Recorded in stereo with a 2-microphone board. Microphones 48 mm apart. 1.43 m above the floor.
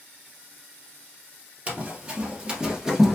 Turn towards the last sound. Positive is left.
turn(degrees=-5)  # may be behind; listen again after turning